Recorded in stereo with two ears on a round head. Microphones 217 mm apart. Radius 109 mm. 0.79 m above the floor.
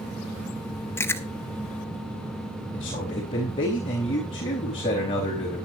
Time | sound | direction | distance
1.0 | chewing | 10° left (ahead or behind) | 1.0 m
2.7 | a man speaking | 25° left (ahead or behind) | 4 m